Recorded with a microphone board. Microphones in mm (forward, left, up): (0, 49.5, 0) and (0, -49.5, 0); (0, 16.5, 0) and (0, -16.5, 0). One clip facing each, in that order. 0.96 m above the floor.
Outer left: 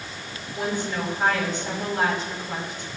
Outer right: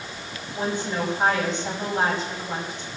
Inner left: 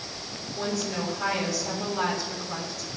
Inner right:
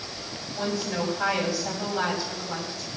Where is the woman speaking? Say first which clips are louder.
Outer right 1 dB, inner right 1 dB; 25° right (ahead or behind), 6.5 m.